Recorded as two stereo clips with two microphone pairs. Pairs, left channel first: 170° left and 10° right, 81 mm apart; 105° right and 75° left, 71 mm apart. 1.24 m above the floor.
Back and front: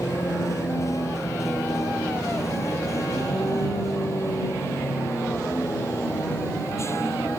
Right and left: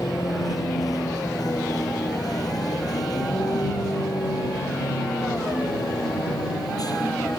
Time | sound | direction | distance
0.0 | a vehicle | 140° right | ?